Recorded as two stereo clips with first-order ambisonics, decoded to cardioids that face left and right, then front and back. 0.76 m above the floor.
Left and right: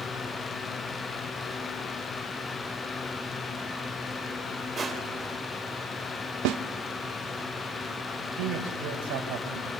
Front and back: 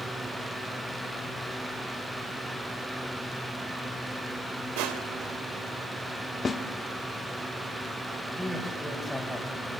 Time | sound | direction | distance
4.8 | crushing | 160° right | 3 m
6.5 | a snare drum | 75° right | 1.4 m
8.2 | a man speaking | 90° right | 5.5 m